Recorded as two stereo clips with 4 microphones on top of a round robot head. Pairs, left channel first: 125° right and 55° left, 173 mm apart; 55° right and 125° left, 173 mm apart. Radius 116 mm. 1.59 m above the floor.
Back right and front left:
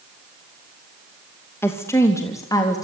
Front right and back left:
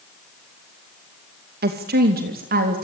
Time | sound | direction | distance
1.6 | a woman speaking | 160° left | 2.5 m